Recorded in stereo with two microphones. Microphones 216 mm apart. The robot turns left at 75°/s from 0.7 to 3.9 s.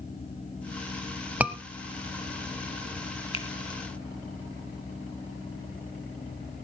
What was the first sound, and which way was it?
A scream, 5° right (ahead or behind).